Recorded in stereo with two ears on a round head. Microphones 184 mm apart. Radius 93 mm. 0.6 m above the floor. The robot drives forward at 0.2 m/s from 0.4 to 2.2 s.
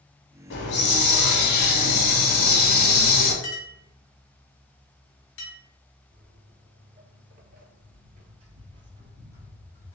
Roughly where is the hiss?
Left.